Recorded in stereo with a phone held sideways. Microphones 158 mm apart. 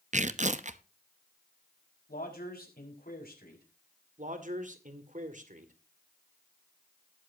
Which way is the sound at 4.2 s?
55° right (ahead or behind).